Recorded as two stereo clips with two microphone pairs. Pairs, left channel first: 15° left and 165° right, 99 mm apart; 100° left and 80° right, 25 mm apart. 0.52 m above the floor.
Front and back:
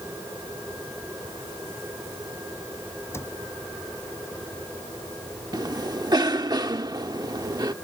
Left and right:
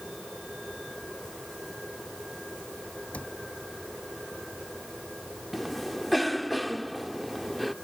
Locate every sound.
3.1 s a cupboard door: 80° left
5.5 s a cough: 170° right